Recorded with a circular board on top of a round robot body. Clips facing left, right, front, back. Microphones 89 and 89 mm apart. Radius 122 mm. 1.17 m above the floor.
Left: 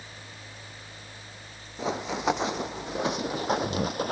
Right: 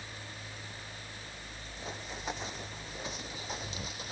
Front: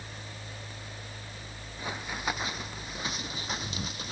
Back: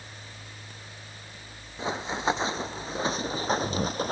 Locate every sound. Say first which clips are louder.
1.8 s running footsteps: left 13 dB, back 6 dB; 110° left; by 4.1 s 130° left